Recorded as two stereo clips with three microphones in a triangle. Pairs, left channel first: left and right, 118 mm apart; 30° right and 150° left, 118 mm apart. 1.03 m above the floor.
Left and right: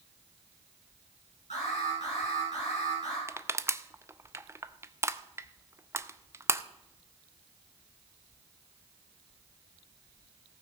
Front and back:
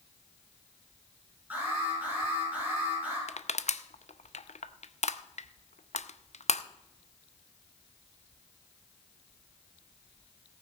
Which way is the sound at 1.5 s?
75° left.